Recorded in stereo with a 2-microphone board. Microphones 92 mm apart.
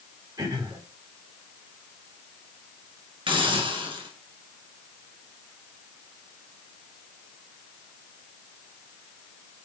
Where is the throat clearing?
50° right (ahead or behind), 4.5 m.